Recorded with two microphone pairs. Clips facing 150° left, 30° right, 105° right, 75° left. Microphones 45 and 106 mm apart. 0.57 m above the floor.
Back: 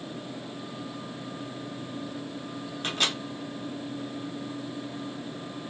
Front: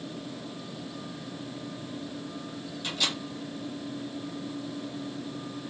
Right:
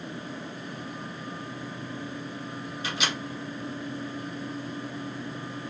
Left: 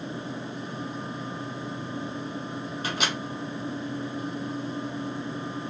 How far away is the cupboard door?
I don't hear a cupboard door.